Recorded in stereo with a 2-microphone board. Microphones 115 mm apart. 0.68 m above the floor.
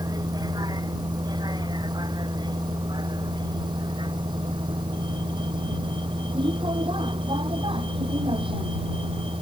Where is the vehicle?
35° right (ahead or behind); by 9.4 s 50° right (ahead or behind).